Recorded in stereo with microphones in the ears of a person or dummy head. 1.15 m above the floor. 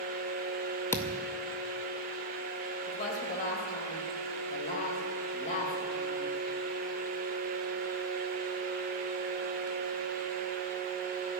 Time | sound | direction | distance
0.9 | a thud | 15° left (ahead or behind) | 0.6 m
2.9 | a woman speaking | 40° left (ahead or behind) | 4.5 m